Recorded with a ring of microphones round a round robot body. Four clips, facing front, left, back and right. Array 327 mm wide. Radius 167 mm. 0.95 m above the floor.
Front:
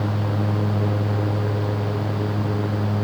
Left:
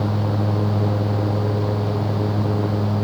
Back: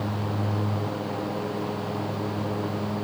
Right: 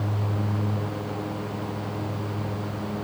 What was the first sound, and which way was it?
Only background noise.